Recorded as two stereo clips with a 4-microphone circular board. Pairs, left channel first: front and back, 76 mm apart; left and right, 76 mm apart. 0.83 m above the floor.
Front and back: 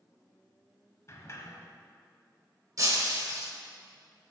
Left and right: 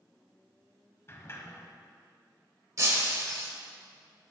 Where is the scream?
I don't hear a scream.